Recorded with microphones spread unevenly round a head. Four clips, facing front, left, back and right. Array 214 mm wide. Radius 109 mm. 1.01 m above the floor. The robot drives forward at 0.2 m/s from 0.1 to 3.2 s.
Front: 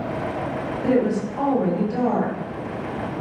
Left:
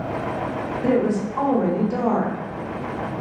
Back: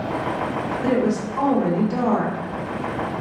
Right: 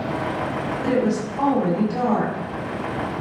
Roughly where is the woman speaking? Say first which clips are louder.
Left 2 dB, front 1 dB; behind left.